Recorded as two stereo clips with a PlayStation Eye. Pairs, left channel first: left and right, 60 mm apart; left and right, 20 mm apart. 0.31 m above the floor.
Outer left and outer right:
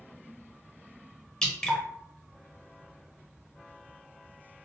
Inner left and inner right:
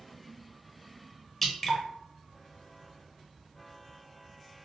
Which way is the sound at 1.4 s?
10° left (ahead or behind).